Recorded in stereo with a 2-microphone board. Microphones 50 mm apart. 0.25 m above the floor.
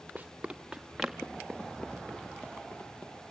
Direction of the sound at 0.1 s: 25° right (ahead or behind).